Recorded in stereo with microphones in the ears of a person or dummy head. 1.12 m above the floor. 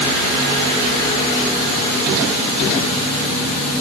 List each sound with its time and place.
Only background noise.